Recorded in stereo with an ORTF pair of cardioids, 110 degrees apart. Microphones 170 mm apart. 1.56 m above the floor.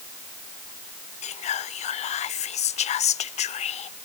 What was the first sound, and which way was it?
Whispering, 45° left.